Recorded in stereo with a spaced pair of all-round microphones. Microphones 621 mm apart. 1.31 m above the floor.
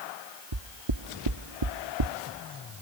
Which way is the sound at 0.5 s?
50° right (ahead or behind).